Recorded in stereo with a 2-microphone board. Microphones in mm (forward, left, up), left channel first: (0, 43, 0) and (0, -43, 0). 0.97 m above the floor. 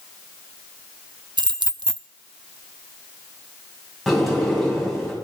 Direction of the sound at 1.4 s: 65° right (ahead or behind).